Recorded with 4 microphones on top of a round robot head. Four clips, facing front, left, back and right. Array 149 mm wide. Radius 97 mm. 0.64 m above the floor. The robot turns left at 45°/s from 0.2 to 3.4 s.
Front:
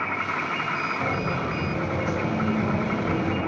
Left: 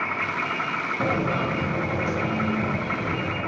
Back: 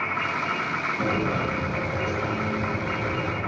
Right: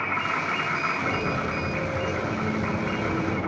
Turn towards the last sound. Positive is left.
turn(degrees=-15)